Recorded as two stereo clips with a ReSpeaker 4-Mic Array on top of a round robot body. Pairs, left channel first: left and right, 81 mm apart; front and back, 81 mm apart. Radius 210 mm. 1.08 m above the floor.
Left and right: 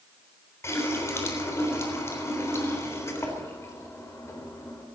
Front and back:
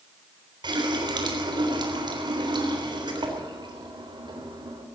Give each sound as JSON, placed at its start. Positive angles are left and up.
{"t": 0.6, "sound": "a running tap", "azimuth_deg": 150, "distance_m": 3.5}